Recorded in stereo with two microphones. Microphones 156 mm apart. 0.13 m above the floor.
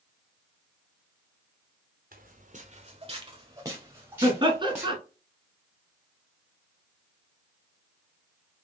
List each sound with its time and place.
2.1 s footsteps: 65° right (ahead or behind), 1.0 m; by 5.0 s 5° right (ahead or behind), 2 m
4.2 s laughter: 30° right (ahead or behind), 1.2 m